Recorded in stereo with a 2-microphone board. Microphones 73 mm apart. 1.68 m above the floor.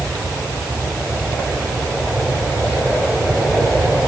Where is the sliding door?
No sliding door in this recording.